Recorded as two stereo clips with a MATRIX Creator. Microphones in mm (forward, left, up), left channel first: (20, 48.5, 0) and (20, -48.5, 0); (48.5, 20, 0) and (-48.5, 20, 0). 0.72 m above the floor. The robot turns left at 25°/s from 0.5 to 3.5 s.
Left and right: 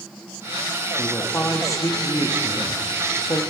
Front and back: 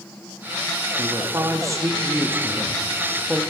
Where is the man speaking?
150° left, 0.9 m; by 3.4 s 90° left, 0.9 m.